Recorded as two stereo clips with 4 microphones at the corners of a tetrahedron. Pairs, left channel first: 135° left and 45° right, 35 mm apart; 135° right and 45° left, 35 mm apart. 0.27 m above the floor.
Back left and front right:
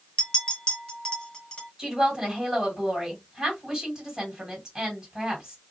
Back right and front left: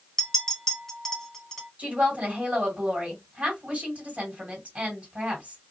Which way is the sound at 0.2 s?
155° left.